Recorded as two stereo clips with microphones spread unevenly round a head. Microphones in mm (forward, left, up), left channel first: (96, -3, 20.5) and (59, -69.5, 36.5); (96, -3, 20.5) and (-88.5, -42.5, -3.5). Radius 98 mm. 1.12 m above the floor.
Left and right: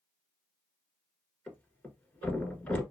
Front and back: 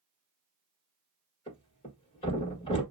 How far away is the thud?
About 1.3 m.